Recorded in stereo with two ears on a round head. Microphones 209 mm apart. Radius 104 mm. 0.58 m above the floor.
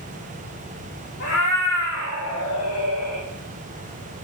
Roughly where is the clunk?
No clunk in this recording.